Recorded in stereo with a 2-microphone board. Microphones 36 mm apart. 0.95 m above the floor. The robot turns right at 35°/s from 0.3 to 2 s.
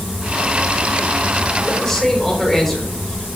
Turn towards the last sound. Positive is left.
turn(degrees=15)  # may be behind; listen again after turning